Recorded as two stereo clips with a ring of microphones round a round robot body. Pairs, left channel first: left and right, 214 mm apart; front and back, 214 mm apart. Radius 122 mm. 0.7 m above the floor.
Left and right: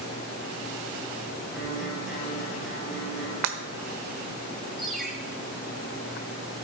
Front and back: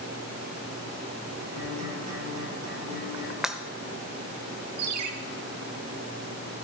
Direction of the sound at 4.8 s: Straight behind.